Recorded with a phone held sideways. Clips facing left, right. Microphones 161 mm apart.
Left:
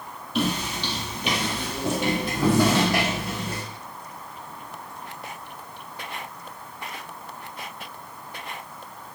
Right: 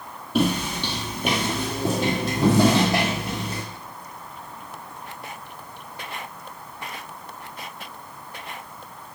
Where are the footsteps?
45° right (ahead or behind), 2 m; by 3.6 s 15° right (ahead or behind), 4 m.